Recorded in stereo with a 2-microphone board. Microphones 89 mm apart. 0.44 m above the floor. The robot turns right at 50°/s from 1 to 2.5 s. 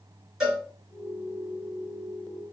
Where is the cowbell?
5° right (ahead or behind), 2.5 m.